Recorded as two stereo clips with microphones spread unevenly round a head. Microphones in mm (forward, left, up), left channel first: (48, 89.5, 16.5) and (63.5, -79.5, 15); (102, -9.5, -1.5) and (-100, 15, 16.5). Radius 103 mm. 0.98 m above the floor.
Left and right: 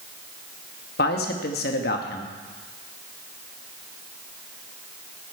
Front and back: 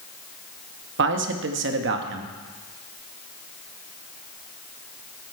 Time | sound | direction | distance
1.0 | a man speaking | 140° left | 1.2 m